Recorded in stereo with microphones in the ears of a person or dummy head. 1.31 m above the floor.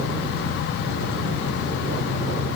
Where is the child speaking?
No child speaking in this recording.